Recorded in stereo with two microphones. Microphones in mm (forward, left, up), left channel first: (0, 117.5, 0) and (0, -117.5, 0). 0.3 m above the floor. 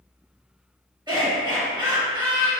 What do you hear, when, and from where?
1.1 s laughter: 20° right (ahead or behind), 1.6 m